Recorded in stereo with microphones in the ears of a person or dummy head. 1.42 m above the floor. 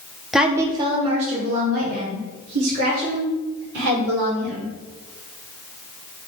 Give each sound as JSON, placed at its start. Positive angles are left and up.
{"t": 0.3, "sound": "a woman speaking", "side_deg": -5, "distance_m": 0.9}